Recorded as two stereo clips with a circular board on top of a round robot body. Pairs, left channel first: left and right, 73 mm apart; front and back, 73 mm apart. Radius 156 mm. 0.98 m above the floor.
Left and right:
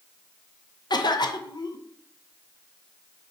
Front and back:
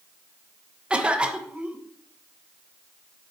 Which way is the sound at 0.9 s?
105° left.